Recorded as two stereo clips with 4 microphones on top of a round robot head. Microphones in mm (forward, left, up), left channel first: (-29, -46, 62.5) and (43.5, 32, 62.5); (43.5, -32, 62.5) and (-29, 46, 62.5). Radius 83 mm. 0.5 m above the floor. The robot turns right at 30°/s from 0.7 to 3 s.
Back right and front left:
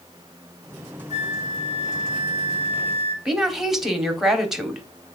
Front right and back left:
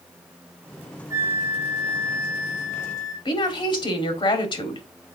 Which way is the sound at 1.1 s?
160° right.